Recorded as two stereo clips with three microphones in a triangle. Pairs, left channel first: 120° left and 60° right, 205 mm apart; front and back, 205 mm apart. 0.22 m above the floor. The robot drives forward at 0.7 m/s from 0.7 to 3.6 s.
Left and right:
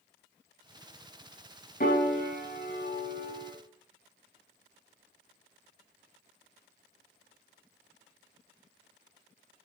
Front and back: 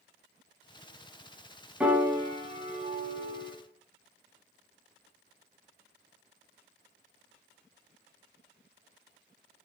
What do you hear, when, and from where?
1.8 s a piano: 100° left, 1.2 m; by 3.5 s 145° left, 1.8 m